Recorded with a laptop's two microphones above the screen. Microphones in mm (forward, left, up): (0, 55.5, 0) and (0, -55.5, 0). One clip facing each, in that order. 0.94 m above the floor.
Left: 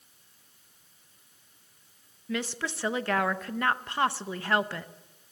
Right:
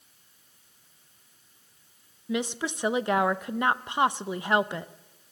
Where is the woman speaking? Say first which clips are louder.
Right 3 dB; 20° right (ahead or behind), 0.6 m.